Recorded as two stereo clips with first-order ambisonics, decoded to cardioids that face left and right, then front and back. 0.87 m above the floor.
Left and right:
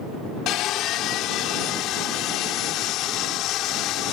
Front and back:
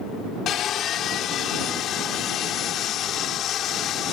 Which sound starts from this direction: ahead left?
Sawing, at 0.5 s.